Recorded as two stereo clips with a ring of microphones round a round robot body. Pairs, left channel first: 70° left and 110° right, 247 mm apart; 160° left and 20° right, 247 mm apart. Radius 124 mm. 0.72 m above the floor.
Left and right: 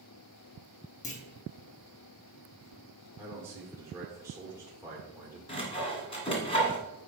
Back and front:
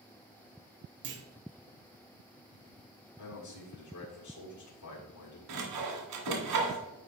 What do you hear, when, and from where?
1.0 s a clunk: 10° left, 1.0 m
3.2 s a man speaking: 170° left, 1.8 m
5.5 s sawing: straight ahead, 1.8 m